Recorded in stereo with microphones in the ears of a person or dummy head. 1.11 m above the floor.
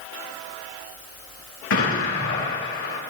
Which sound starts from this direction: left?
An explosion, at 1.7 s.